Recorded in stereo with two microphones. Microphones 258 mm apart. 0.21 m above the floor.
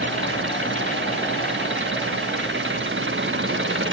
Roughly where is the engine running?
Right.